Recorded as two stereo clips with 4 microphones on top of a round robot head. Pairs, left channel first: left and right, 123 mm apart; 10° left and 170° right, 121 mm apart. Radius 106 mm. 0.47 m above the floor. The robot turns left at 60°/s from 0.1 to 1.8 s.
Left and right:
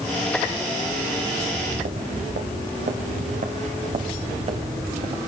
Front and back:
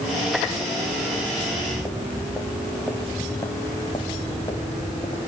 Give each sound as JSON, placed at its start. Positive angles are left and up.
{"t": 1.4, "sound": "footsteps", "azimuth_deg": -60, "distance_m": 3.0}